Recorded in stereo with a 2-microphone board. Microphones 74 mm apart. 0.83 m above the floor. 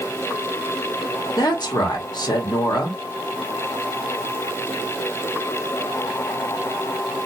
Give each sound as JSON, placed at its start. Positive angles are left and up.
{"t": 1.4, "sound": "a woman speaking", "side_deg": 65, "distance_m": 1.2}